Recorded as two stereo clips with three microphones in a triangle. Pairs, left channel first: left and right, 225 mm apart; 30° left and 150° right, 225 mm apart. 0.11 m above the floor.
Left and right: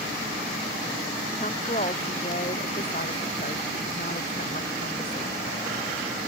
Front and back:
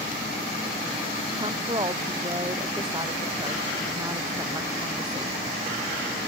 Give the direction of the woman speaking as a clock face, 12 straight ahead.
7 o'clock.